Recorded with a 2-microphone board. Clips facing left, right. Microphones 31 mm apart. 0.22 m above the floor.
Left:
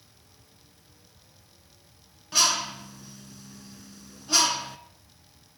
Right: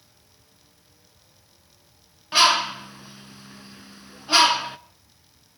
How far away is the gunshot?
No gunshot in this recording.